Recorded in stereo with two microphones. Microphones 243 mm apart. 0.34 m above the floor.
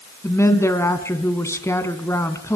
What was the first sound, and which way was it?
A woman speaking, 10° left (ahead or behind).